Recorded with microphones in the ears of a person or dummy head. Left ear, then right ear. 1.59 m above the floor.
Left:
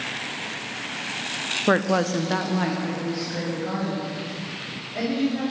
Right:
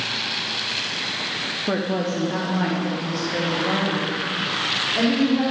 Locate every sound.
1.7 s a woman speaking: 70° left (ahead or behind), 0.7 m; by 5.4 s 5° right (ahead or behind), 4.5 m